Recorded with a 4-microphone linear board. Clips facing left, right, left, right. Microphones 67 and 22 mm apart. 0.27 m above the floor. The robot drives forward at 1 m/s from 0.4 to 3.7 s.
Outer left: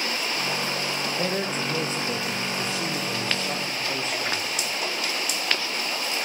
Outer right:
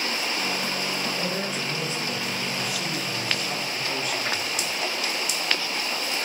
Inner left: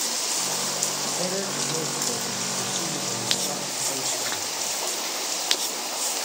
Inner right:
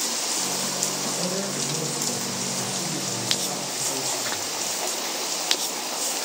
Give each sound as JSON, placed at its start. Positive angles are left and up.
{"t": 1.2, "sound": "a man speaking", "side_deg": 40, "distance_m": 4.5}